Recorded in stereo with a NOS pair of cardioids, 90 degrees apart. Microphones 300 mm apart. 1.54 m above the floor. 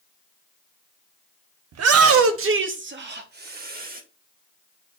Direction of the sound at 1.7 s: 60° right.